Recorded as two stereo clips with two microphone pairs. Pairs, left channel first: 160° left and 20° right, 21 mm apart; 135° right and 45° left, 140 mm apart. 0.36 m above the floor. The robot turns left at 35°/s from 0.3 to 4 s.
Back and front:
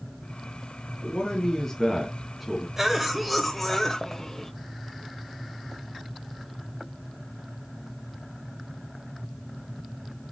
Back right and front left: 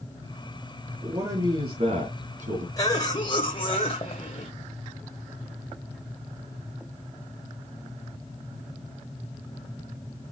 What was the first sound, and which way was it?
A man speaking, 115° left.